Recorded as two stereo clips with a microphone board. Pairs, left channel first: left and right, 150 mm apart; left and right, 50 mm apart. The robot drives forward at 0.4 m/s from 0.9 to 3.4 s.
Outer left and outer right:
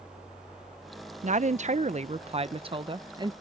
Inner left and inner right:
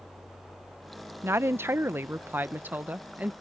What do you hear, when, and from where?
1.2 s a woman speaking: 55° right (ahead or behind); by 3.3 s 30° right (ahead or behind)